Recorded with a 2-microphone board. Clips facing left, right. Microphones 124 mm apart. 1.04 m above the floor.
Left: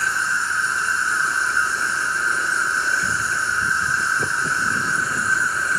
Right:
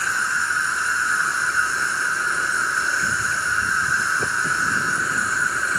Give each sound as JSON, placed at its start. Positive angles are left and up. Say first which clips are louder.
{"t": 0.0, "sound": "an insect", "louder": "left 1 dB", "side_deg": -80, "distance_m": 1.3}